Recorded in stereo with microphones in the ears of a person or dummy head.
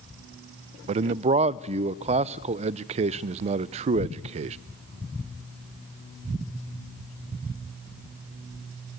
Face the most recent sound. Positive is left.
turn(degrees=-30)  # may be behind; listen again after turning